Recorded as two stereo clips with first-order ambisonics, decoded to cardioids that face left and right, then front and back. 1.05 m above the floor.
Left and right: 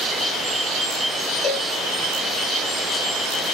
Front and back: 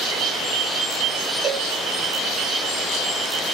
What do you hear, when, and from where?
1.4 s a cowbell: 115° left, 1.1 m